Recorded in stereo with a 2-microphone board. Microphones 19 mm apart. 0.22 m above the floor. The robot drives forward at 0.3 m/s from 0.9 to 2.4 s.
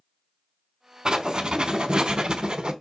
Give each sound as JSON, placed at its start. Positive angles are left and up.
{"t": 1.1, "sound": "writing", "side_deg": -45, "distance_m": 0.7}